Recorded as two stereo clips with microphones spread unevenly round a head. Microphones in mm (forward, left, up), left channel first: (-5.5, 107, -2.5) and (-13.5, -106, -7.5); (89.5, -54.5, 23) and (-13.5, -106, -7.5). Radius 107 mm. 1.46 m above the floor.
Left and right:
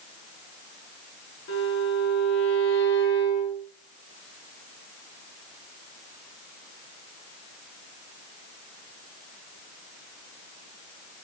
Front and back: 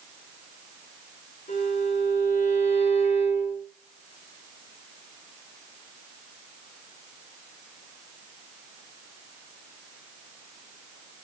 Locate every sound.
1.5 s a violin: 60° left, 5 m